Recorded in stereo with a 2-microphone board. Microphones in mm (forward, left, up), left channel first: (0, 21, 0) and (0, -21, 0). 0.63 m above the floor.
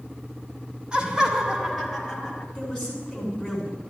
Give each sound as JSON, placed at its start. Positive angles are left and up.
{"t": 0.9, "sound": "laughter", "side_deg": -20, "distance_m": 2.5}
{"t": 2.5, "sound": "a woman speaking", "side_deg": 10, "distance_m": 7.0}